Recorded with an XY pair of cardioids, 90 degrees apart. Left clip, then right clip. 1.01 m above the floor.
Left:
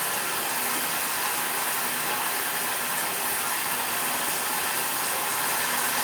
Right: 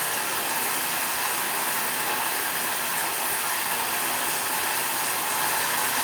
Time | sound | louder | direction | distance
0.0 | running water | right 1 dB | 20° right | 2.5 m